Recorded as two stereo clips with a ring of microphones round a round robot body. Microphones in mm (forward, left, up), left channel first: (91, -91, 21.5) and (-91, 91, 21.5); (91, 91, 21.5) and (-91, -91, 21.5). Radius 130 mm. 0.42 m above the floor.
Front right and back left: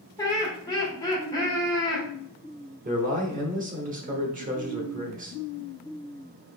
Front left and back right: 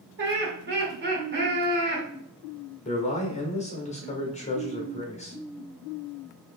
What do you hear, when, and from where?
0.2 s laughter: 110° right, 1.6 m
2.9 s a man speaking: 95° left, 1.1 m